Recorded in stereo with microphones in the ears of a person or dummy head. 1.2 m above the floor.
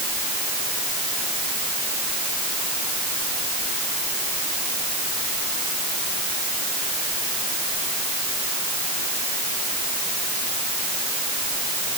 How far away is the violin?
I don't hear a violin.